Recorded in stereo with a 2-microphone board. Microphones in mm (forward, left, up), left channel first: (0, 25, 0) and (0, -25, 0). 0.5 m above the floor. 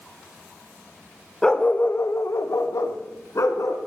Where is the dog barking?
10° left (ahead or behind), 1.0 m; by 3.8 s 80° left, 2.5 m.